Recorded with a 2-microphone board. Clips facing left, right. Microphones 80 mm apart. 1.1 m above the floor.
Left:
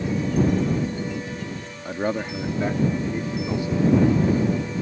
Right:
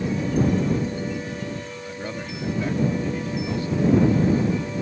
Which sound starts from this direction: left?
A man speaking, at 1.9 s.